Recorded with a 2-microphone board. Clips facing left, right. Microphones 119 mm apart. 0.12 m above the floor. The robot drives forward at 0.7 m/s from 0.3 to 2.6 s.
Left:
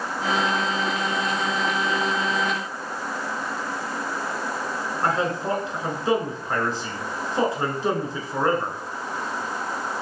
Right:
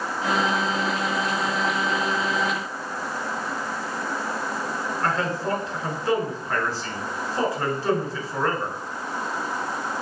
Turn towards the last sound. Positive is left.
turn(degrees=20)  # may be behind; listen again after turning